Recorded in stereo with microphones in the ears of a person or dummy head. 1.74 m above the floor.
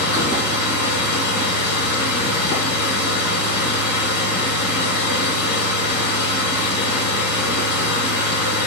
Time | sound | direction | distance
0.0 | a machine running | 75° left (ahead or behind) | 2.0 m